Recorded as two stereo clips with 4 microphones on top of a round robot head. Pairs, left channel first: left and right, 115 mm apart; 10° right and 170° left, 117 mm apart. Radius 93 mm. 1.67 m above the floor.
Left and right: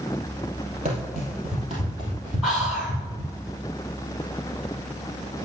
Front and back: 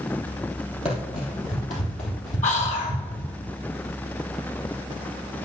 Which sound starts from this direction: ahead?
Whispering, at 2.4 s.